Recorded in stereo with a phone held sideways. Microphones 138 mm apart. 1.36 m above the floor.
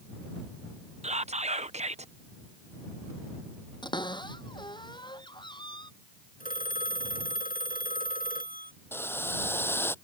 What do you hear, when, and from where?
1.0 s whispering: 55° right (ahead or behind)
3.8 s a cupboard door: 35° left (ahead or behind)
6.4 s a phone ringing: 85° left
8.9 s boiling: 15° left (ahead or behind)